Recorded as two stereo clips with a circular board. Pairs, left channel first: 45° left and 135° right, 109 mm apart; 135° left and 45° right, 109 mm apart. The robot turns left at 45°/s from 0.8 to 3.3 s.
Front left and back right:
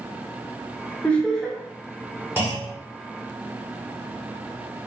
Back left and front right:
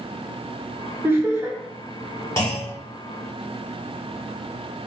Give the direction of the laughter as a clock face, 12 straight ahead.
12 o'clock.